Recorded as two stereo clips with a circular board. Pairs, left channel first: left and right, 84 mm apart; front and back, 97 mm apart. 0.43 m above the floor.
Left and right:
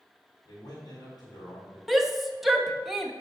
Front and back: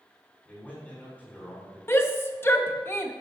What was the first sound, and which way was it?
A man speaking, 75° left.